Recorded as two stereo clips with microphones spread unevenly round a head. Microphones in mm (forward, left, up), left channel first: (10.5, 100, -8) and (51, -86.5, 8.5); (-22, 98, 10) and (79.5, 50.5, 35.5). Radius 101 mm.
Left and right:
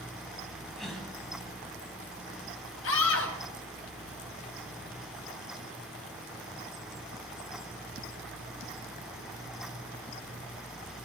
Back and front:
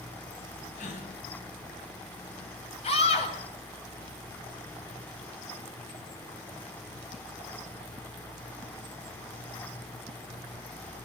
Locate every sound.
0.8 s a gasp: 165° right, 4 m
2.8 s a scream: 130° left, 7.5 m